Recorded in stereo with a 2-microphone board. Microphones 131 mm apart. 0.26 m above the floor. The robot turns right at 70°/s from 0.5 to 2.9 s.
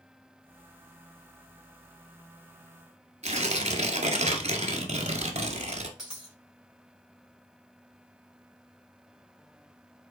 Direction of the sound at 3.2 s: 55° right (ahead or behind).